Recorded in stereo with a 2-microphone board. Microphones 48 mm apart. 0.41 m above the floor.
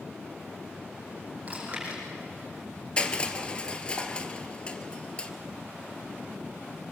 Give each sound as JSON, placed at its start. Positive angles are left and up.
{"t": 1.5, "sound": "chewing", "side_deg": -25, "distance_m": 8.0}
{"t": 3.0, "sound": "crushing", "side_deg": 20, "distance_m": 1.4}